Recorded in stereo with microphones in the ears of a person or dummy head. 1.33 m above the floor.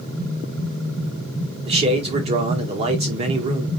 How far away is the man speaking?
About 1.4 m.